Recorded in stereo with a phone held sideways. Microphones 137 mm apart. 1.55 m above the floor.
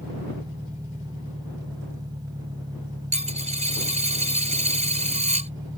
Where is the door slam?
I don't hear a door slam.